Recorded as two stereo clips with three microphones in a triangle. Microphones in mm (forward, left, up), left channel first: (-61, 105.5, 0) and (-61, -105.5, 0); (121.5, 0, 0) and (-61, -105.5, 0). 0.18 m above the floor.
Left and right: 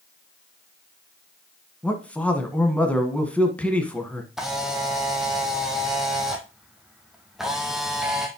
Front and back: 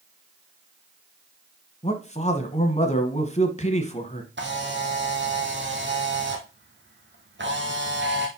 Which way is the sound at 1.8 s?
10° left.